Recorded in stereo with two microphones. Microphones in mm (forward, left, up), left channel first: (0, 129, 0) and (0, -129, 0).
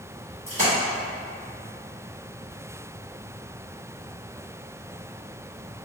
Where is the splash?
30° right (ahead or behind), 1.9 m.